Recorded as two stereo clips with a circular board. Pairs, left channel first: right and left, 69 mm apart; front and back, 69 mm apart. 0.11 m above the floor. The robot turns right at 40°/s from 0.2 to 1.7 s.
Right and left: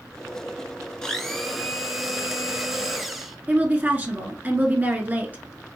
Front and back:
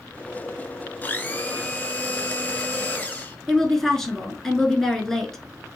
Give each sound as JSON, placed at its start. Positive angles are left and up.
{"t": 1.0, "sound": "a blender", "azimuth_deg": -20, "distance_m": 0.9}
{"t": 3.5, "sound": "a woman speaking", "azimuth_deg": 75, "distance_m": 1.1}